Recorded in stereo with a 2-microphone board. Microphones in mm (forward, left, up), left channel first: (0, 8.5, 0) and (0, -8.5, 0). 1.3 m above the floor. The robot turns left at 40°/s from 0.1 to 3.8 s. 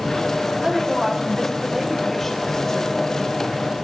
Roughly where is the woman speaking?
Behind right.